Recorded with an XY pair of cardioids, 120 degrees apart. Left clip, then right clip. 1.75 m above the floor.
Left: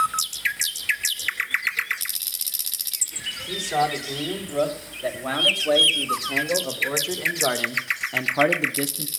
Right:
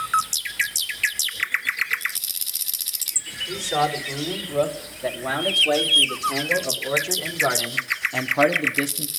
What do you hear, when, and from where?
3.5 s a man speaking: 10° left, 5 m; by 9.1 s straight ahead, 0.8 m